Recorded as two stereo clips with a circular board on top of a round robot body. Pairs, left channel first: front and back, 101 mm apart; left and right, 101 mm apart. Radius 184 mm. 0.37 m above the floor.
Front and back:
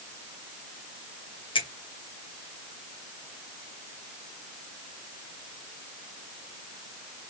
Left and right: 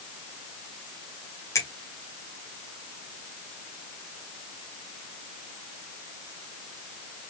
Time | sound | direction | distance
1.6 | a finger snap | 30° left | 2 m